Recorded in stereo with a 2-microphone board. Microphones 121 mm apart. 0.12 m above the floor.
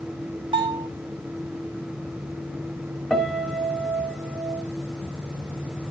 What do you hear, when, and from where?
0.5 s a bell: 40° right (ahead or behind), 4 m
3.1 s a piano: 10° left (ahead or behind), 1.5 m